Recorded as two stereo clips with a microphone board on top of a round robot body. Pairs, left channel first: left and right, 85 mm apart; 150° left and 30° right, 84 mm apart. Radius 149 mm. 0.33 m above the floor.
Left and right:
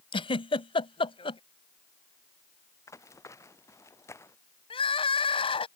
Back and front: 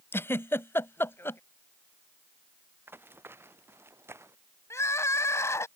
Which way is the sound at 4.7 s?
90° left.